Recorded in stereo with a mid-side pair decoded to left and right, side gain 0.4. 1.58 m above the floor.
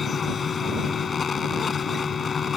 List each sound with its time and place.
0.0 s a fan: 45° left